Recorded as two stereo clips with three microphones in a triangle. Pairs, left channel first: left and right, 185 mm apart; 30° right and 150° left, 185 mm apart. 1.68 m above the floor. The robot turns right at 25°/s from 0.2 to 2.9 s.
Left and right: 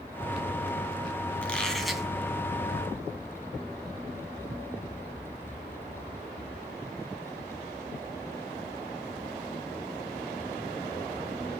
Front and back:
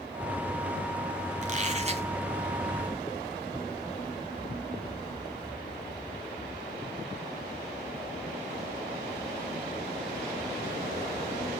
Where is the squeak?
170° left, 2 m; by 2.1 s 175° right, 2 m.